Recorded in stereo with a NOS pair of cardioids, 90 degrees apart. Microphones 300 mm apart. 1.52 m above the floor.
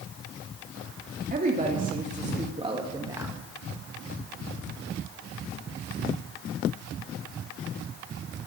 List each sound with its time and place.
1.3 s a woman speaking: 30° right, 3 m; by 3.4 s 5° right, 1.8 m